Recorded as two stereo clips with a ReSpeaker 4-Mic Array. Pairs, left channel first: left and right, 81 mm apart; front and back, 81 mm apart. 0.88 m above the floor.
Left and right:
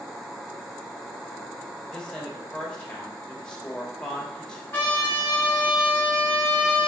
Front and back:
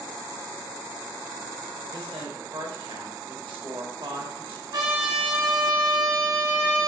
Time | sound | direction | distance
1.9 | a woman speaking | 170° left | 1.3 m
4.7 | a trumpet | 160° left | 1.5 m